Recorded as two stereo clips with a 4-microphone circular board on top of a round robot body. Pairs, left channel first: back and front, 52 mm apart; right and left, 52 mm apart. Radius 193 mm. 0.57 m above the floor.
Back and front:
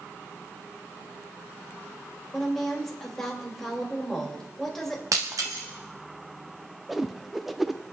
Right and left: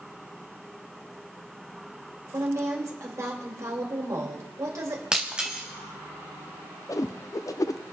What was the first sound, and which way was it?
A woman speaking, 95° left.